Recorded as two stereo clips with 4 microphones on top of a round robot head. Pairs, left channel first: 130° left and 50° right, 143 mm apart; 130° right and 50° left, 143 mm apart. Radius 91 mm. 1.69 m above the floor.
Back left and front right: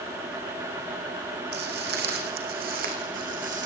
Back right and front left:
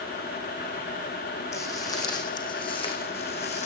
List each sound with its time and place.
1.5 s footsteps: 60° right, 5 m; by 3.6 s 85° right, 5.5 m